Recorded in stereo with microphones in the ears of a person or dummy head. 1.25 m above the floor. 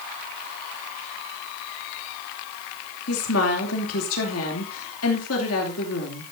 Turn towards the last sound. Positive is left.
turn(degrees=85)